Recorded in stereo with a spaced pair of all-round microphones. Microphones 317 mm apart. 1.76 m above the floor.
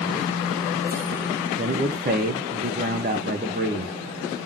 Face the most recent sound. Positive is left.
turn(degrees=-30)  # may be behind; listen again after turning